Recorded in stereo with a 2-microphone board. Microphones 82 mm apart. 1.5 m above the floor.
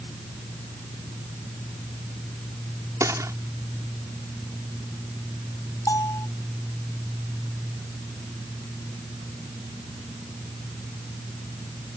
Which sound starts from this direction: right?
A gunshot, at 3.0 s.